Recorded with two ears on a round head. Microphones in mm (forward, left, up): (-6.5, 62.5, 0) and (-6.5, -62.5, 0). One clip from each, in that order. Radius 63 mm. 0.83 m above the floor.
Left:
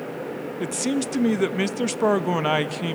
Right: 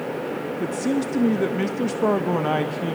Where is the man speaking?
55° left (ahead or behind), 0.7 m.